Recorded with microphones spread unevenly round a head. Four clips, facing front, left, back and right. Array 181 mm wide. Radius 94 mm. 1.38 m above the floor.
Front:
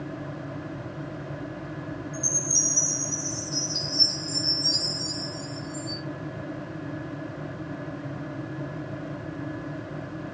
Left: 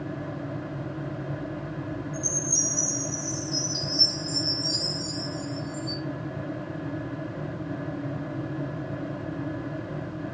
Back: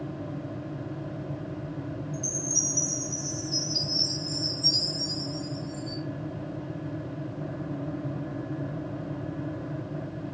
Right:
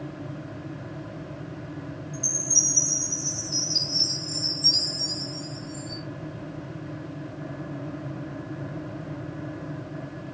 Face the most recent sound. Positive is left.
turn(degrees=130)